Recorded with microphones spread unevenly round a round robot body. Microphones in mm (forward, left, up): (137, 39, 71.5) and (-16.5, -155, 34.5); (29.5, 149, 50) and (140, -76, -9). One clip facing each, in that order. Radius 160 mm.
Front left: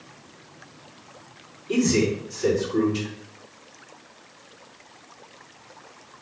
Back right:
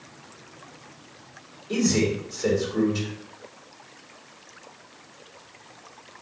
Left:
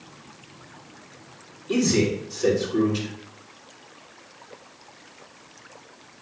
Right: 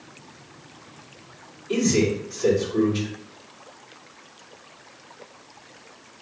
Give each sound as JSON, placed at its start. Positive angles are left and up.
{"t": 1.7, "sound": "a man speaking", "azimuth_deg": 85, "distance_m": 3.0}